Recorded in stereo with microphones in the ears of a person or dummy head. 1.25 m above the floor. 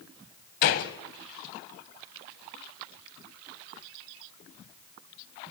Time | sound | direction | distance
0.6 | a gunshot | 45° left (ahead or behind) | 1.4 m